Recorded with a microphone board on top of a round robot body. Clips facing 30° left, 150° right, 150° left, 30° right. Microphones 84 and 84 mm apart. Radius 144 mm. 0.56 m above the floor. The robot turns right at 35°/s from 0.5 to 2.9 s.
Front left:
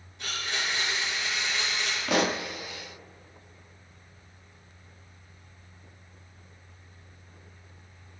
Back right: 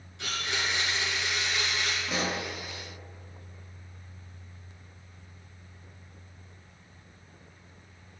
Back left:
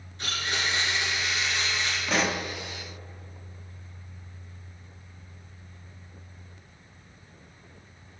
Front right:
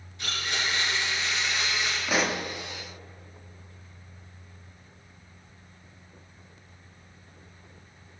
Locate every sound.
0.2 s a blender: 155° right, 1.9 m; by 2.0 s 100° right, 1.9 m
2.1 s a pop: 55° left, 0.5 m; by 2.5 s 65° left, 0.5 m